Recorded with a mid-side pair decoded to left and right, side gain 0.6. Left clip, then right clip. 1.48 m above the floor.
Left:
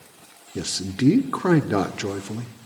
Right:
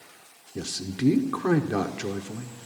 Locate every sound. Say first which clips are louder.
0.6 s a man speaking: left 5 dB; 25° left, 0.9 m